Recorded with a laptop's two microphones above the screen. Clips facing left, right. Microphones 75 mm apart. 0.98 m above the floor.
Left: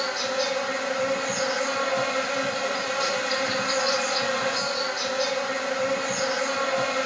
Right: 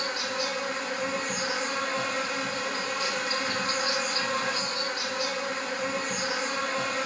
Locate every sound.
0.0 s an insect: 70° left (ahead or behind), 1.5 m